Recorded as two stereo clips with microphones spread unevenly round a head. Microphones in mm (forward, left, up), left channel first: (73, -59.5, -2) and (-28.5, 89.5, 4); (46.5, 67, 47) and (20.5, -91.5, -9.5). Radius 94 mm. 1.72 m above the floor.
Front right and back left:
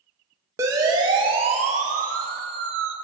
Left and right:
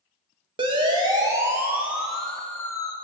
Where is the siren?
160° right, 3.5 m; by 3.0 s 150° left, 2.5 m.